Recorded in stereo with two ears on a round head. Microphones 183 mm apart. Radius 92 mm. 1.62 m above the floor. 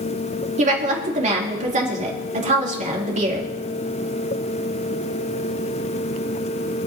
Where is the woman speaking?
40° right (ahead or behind), 4 m.